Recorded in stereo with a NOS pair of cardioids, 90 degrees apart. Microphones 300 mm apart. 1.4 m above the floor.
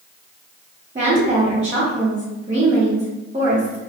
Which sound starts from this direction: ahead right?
A woman speaking, at 0.9 s.